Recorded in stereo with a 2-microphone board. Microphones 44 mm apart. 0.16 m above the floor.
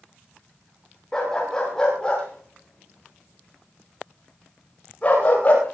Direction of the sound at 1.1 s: 10° left (ahead or behind).